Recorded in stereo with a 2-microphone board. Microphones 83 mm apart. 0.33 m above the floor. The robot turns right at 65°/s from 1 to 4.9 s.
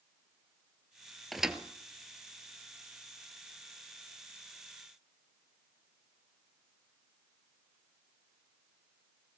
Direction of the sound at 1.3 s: Centre (ahead or behind).